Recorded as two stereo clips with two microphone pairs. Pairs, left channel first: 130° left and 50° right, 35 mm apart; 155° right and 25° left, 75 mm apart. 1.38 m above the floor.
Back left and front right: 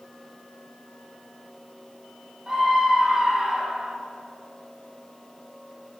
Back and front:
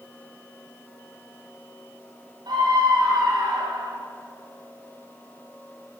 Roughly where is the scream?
Ahead.